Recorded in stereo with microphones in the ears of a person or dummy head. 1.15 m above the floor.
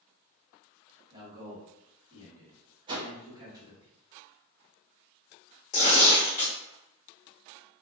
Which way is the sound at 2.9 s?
25° right (ahead or behind).